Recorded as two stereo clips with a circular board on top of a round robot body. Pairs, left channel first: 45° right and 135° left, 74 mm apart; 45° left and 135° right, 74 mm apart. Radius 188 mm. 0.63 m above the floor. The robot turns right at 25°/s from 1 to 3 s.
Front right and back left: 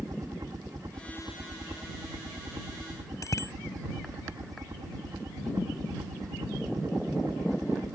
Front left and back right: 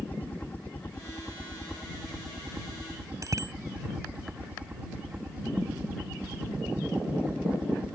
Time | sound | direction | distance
0.0 | a helicopter | 105° left | ?
3.2 | a bicycle bell | 90° right | ?